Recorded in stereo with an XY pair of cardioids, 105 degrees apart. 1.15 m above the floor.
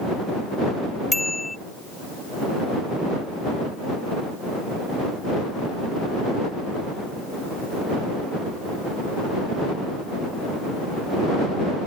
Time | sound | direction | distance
1.1 | a bicycle bell | 15° left | ?